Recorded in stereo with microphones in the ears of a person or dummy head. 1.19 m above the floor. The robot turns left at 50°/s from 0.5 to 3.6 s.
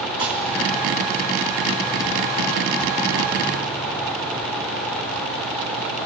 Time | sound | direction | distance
0.2 | dishes clattering | 30° right (ahead or behind) | 3.5 m